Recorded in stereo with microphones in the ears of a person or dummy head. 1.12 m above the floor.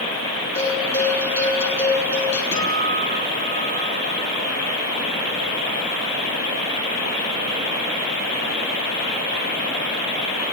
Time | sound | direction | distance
0.6 | a bell | 15° left (ahead or behind) | 9 m
2.5 | a guitar | 15° left (ahead or behind) | 9.5 m